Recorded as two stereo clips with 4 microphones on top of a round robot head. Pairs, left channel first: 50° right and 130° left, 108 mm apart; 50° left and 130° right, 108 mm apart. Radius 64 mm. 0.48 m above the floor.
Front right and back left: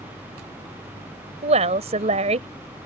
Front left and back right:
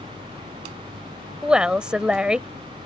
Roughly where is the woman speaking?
Behind left.